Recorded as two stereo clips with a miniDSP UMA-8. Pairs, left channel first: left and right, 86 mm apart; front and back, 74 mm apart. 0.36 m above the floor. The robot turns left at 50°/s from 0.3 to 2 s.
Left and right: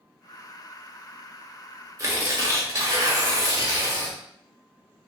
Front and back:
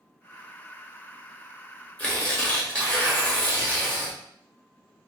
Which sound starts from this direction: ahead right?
Tearing paper, at 2.0 s.